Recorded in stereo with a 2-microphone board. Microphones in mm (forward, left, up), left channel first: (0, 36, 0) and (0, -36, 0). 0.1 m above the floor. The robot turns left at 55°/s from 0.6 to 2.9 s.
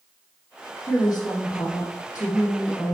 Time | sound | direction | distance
0.9 | a woman speaking | 130° left | 3.5 m